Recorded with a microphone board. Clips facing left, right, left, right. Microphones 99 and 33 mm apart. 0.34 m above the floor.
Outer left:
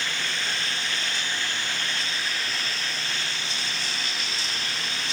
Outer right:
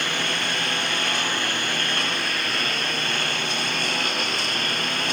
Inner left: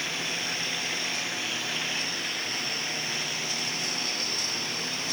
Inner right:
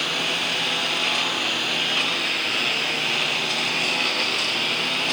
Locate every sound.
0.0 s a lawn mower: 60° right (ahead or behind); by 5.2 s 55° right (ahead or behind)